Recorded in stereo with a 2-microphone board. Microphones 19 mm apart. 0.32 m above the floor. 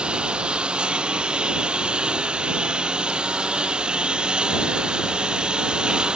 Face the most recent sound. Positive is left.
turn(degrees=-50)  # may be behind; listen again after turning